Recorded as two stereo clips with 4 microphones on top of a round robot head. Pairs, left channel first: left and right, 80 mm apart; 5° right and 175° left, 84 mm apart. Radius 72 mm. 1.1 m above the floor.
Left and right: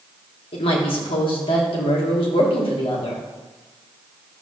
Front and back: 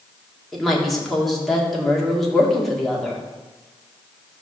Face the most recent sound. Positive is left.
turn(degrees=80)